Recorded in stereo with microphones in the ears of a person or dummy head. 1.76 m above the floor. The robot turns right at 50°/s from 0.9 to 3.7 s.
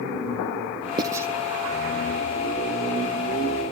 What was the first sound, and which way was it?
Writing, 25° right (ahead or behind).